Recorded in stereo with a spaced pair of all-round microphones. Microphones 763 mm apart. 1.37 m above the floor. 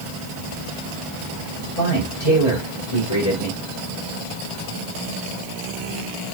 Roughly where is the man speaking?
Left.